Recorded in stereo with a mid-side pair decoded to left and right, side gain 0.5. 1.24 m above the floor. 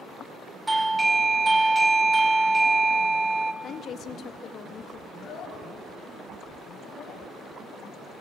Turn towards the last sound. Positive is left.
turn(degrees=65)